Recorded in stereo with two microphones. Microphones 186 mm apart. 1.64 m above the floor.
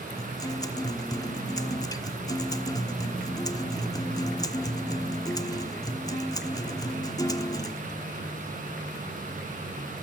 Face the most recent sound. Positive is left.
turn(degrees=20)  # may be behind; listen again after turning